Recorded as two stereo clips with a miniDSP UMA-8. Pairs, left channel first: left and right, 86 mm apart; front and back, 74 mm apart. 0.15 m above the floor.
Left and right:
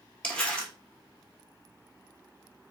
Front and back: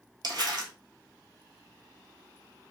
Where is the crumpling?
165° left, 0.8 m.